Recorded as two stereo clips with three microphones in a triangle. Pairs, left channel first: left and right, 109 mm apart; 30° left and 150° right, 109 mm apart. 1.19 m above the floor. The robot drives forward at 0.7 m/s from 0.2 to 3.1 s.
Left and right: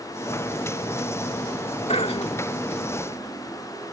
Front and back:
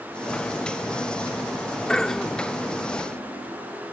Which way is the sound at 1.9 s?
115° left.